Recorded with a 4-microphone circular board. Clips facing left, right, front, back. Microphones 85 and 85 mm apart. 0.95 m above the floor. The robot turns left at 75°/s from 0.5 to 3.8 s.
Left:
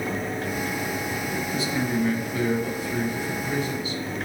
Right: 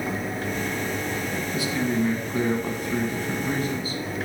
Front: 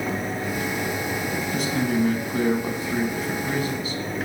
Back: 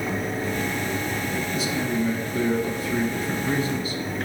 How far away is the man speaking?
About 1.2 m.